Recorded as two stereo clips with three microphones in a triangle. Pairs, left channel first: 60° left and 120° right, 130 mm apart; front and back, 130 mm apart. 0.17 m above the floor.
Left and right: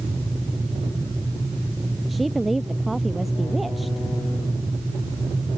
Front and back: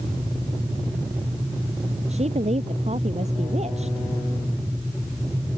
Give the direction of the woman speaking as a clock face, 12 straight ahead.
7 o'clock.